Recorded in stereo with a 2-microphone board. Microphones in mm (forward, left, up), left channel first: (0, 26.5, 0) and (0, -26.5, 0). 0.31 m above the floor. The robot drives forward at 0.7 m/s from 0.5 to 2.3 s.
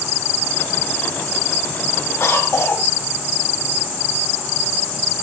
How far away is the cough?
About 2.0 m.